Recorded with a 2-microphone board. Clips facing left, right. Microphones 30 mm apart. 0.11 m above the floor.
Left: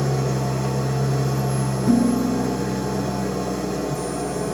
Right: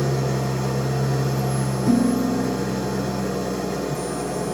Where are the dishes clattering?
50° right (ahead or behind), 3 m.